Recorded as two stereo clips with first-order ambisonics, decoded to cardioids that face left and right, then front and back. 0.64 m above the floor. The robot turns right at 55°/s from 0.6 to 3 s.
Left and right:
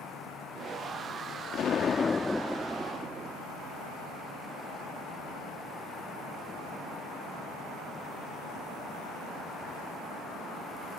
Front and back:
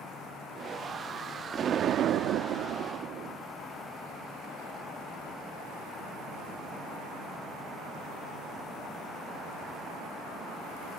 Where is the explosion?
125° left; by 3.4 s 155° right.